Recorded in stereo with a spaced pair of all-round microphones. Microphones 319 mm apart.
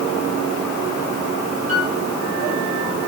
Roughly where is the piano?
Right.